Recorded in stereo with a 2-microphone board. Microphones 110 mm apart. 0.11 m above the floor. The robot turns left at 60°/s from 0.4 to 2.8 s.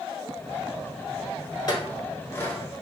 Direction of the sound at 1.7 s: 35° left (ahead or behind).